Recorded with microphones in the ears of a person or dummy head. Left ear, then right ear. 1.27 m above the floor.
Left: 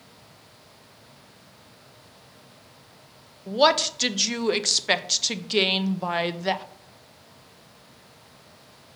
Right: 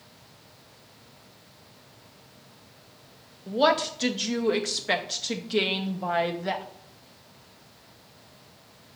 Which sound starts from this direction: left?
A woman speaking, at 3.5 s.